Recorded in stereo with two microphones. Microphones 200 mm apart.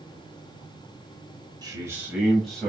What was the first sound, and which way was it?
A man speaking, 20° right (ahead or behind).